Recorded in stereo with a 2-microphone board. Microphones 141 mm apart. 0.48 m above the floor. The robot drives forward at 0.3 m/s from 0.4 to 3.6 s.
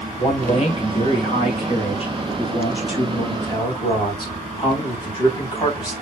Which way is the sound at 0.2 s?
45° left (ahead or behind).